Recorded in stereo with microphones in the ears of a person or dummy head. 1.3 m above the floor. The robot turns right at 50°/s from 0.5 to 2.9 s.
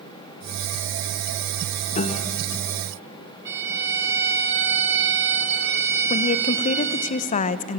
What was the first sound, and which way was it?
A piano, 40° left (ahead or behind).